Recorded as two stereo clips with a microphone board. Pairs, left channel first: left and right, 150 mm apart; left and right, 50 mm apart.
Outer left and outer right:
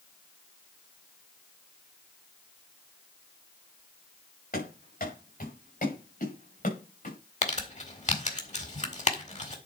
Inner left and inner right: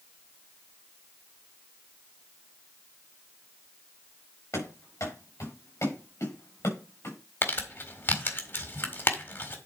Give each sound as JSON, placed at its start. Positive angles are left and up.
{"t": 4.5, "sound": "running footsteps", "side_deg": 75, "distance_m": 6.5}
{"t": 7.4, "sound": "crumpling", "side_deg": 50, "distance_m": 1.8}